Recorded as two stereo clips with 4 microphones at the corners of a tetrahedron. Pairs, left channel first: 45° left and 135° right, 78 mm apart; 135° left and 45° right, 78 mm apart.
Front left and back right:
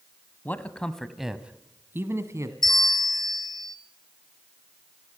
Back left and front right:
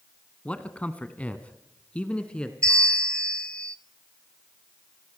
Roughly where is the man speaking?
Left.